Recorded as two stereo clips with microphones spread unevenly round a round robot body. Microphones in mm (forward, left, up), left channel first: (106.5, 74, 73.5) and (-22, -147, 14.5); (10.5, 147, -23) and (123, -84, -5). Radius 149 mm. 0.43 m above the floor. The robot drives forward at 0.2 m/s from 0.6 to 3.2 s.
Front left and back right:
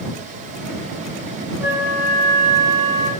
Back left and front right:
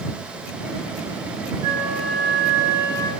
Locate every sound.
1.6 s a flute: 105° right, 1.4 m; by 3.1 s 135° right, 1.4 m